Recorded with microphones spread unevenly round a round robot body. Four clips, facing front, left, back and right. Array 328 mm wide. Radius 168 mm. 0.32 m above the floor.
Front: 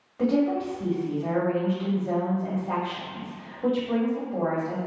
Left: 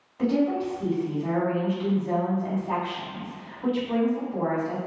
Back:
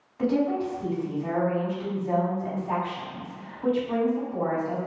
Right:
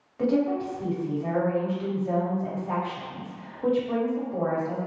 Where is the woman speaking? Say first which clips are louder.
Even, front 1 dB; 40° right, 1.7 m.